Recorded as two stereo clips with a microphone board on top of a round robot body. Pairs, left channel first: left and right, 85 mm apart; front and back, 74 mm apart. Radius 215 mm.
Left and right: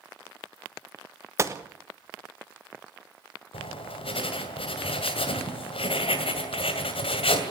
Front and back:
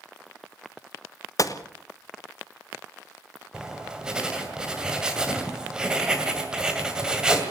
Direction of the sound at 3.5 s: 100° left.